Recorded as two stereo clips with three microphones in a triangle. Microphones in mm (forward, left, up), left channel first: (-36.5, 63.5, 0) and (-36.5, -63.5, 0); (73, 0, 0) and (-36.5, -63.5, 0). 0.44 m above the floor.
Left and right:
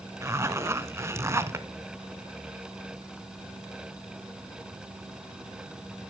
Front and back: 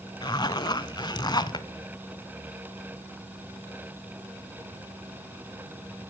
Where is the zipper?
25° right, 0.6 m.